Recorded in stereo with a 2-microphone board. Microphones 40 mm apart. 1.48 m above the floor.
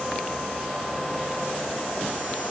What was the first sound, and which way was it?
Only background noise.